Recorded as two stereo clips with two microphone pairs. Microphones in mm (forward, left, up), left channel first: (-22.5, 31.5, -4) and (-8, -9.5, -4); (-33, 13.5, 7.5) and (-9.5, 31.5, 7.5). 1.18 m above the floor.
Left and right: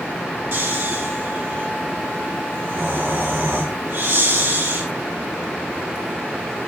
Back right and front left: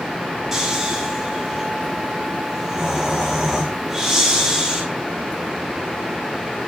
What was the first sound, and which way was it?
Snoring, 40° right.